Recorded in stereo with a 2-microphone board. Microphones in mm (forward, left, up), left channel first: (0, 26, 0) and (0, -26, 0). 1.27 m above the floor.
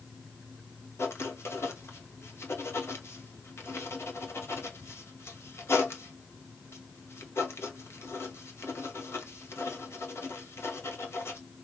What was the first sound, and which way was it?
Writing, 55° left (ahead or behind).